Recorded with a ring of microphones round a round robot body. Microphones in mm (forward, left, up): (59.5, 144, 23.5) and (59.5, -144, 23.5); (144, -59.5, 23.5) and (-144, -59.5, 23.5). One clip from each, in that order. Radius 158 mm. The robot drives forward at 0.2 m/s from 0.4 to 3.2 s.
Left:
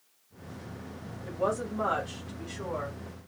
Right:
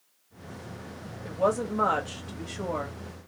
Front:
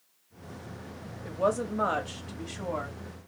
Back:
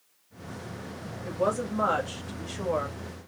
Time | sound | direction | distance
1.2 | a woman speaking | 75° right | 1.1 m